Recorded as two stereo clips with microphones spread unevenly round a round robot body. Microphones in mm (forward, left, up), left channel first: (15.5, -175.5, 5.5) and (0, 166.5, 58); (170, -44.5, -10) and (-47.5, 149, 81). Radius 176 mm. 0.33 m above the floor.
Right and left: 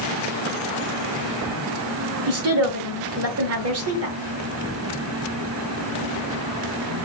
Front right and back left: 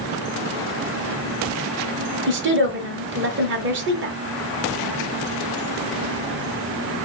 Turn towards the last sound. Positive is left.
turn(degrees=90)